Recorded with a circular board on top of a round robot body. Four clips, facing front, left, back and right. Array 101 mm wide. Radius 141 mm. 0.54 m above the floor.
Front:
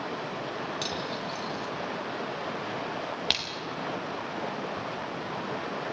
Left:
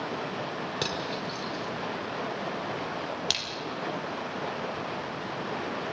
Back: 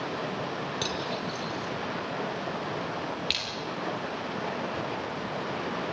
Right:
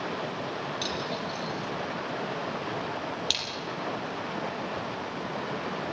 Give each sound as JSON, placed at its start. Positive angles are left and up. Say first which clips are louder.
{"t": 0.8, "sound": "cutlery clinking", "louder": "even, back 1 dB", "azimuth_deg": 105, "distance_m": 6.0}
{"t": 3.3, "sound": "a splash", "louder": "even, front 2 dB", "azimuth_deg": 15, "distance_m": 4.0}